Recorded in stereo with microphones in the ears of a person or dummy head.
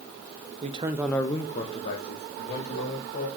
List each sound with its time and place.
0.6 s a man speaking: 30° right (ahead or behind), 0.7 m; by 3.3 s 35° left (ahead or behind), 2.5 m